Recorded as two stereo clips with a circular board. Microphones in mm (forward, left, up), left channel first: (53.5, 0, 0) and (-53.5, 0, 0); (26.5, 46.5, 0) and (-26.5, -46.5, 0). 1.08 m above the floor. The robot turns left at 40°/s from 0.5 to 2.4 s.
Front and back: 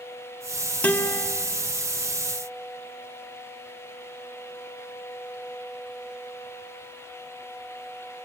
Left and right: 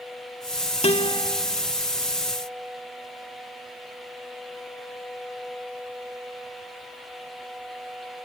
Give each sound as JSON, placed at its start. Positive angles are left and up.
{"t": 0.8, "sound": "a guitar", "azimuth_deg": 75, "distance_m": 1.8}